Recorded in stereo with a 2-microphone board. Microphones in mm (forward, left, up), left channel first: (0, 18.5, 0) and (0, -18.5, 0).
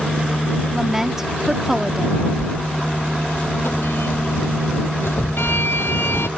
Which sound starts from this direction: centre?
A woman speaking, at 0.7 s.